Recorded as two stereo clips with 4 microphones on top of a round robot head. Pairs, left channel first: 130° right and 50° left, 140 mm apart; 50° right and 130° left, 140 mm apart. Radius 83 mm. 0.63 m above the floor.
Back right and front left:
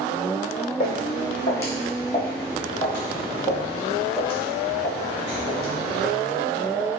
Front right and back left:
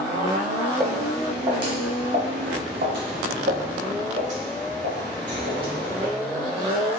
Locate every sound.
0.8 s footsteps: 160° right, 1.5 m; by 6.1 s 150° left, 3.5 m